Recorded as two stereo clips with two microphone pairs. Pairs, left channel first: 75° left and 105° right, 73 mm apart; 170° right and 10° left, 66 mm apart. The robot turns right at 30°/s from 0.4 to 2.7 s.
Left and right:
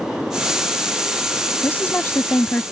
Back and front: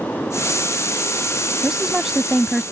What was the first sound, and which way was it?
A woman speaking, 75° left.